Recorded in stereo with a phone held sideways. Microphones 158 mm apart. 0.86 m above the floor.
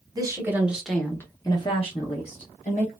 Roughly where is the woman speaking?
Right.